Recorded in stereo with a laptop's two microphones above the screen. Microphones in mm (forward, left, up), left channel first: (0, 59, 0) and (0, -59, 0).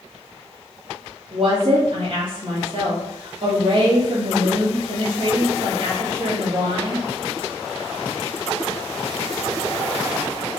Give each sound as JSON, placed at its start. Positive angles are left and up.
{"t": 1.3, "sound": "a woman speaking", "side_deg": -45, "distance_m": 1.1}